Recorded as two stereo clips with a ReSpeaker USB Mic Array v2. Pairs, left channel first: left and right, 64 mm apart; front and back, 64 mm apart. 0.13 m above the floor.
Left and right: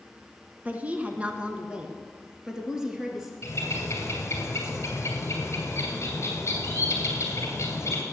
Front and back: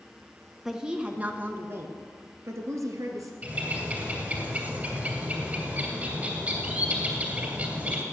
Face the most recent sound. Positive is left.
turn(degrees=120)